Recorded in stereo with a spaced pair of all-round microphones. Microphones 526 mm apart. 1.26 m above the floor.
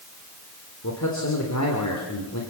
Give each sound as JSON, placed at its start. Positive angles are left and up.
{"t": 0.8, "sound": "a man speaking", "side_deg": 30, "distance_m": 3.5}